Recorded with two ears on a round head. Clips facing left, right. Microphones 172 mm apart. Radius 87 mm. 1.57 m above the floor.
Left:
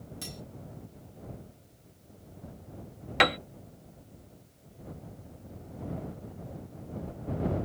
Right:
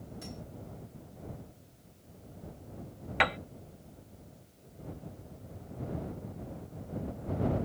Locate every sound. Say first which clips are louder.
0.2 s cutlery clinking: even; 70° left (ahead or behind)
3.2 s a piano: left 5 dB; 50° left (ahead or behind)